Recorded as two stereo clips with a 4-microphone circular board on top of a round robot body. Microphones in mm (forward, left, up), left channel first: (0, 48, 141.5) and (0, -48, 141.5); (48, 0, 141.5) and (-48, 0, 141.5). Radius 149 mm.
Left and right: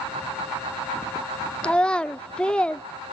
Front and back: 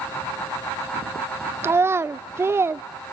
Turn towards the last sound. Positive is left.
turn(degrees=160)